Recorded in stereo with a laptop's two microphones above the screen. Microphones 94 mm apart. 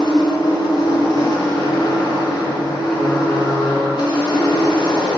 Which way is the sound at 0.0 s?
55° left (ahead or behind).